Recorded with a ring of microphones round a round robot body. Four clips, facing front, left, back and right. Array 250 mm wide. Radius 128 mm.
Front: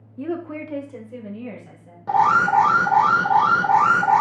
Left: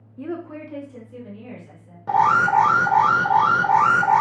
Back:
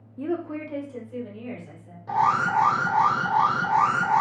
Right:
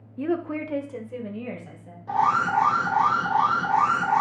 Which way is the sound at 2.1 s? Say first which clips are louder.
Left 5 dB, front 5 dB; 55° left.